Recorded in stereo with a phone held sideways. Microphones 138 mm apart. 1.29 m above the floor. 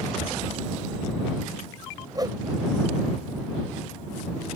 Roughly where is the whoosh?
Right.